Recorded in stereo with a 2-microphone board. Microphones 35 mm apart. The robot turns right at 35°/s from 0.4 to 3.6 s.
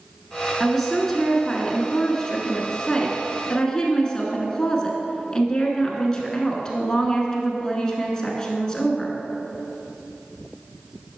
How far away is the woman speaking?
About 1.1 m.